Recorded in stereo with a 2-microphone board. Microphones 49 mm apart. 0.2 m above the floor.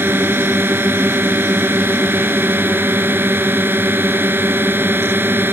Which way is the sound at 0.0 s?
45° right (ahead or behind).